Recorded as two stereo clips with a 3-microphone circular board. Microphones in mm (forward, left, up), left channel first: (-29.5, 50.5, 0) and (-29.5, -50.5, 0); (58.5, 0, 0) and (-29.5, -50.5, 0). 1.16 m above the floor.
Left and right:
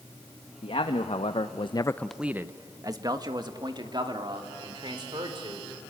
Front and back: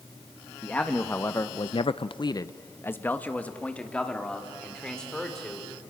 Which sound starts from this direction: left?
A man speaking, at 0.6 s.